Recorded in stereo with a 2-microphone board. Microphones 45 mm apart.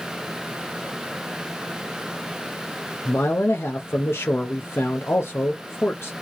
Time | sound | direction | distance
3.0 | a man speaking | 65° left (ahead or behind) | 0.7 m